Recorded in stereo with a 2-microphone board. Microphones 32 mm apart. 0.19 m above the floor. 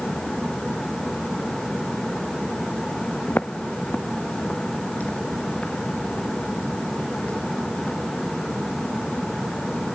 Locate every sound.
3.3 s footsteps: 75° left (ahead or behind), 1.0 m; by 9.9 s 30° left (ahead or behind), 10.5 m